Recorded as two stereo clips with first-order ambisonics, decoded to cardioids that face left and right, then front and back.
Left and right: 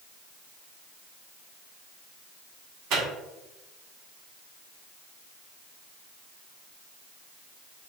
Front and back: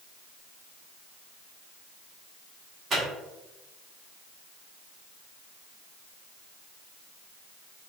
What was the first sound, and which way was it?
A microwave, 115° right.